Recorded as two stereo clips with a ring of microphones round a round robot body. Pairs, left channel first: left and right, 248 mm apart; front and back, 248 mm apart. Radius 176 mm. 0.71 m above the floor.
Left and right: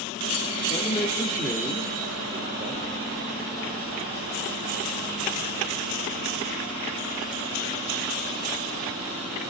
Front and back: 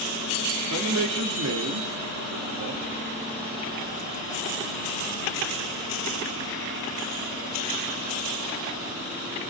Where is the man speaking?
165° left, 1.6 m; by 2.8 s 145° right, 1.3 m.